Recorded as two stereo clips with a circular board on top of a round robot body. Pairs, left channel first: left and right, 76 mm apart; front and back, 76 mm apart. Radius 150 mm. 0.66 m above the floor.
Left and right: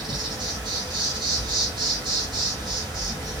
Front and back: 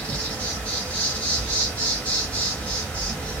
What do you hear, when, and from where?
0.0 s an insect: 75° right, 1.1 m